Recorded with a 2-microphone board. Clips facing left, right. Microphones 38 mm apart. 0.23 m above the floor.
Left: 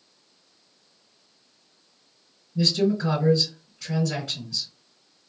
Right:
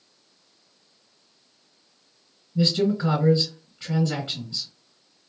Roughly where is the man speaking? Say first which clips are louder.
Even; right.